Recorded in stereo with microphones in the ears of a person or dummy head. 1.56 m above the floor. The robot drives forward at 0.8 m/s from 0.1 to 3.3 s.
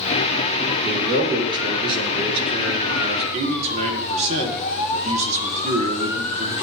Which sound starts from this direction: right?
A man speaking, at 0.7 s.